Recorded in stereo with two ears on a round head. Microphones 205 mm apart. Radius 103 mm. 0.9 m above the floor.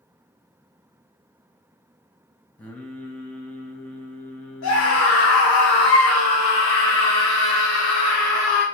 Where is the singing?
5° left (ahead or behind), 0.8 m.